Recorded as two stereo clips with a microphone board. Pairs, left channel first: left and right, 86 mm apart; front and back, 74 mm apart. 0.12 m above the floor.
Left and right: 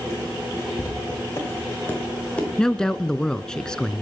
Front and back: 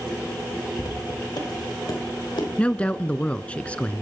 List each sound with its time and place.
0.8 s footsteps: 30° left, 8 m; by 2.5 s 15° left, 7.5 m
2.6 s a woman speaking: 25° left, 1.1 m